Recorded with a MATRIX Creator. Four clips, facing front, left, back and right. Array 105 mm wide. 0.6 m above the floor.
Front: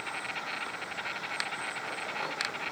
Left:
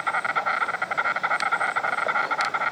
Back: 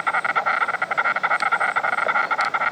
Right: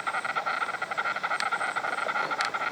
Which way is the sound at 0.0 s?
165° left.